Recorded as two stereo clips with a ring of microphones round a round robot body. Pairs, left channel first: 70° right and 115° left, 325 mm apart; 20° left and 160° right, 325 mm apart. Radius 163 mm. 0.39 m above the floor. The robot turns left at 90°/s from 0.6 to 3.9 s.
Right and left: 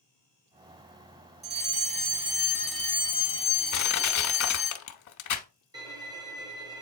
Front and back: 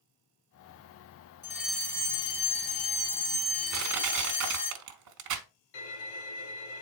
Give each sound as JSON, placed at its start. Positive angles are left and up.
{"t": 1.4, "sound": "a fire alarm", "azimuth_deg": 135, "distance_m": 2.0}
{"t": 3.7, "sound": "crushing", "azimuth_deg": -100, "distance_m": 0.9}
{"t": 5.7, "sound": "a violin", "azimuth_deg": 35, "distance_m": 2.0}